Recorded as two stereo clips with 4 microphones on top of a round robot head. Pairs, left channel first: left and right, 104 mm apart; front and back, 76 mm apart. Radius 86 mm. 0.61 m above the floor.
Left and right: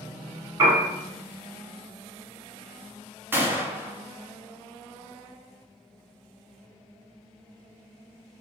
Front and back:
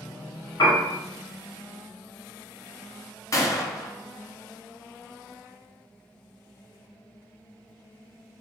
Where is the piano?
35° right, 1.5 m.